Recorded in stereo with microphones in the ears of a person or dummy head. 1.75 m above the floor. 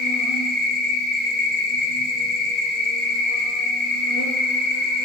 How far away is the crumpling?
No crumpling in this recording.